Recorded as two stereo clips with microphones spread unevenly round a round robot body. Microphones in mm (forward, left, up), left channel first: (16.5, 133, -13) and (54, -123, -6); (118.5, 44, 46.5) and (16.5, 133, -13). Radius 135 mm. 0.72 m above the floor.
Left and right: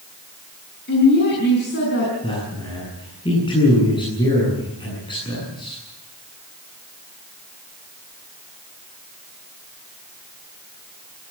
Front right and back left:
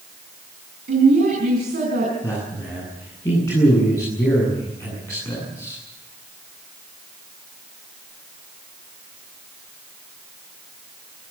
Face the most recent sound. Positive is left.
turn(degrees=25)